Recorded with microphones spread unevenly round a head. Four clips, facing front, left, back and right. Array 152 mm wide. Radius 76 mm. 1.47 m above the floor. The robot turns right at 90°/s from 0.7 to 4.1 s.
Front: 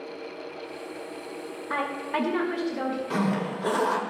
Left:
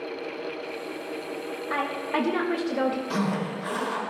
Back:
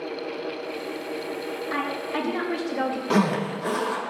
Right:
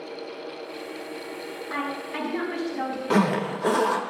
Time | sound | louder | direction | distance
1.7 | a woman speaking | left 3 dB, front 1 dB | 10° left | 1.8 m
3.1 | a zipper | right 5 dB, back 7 dB | 135° right | 1.1 m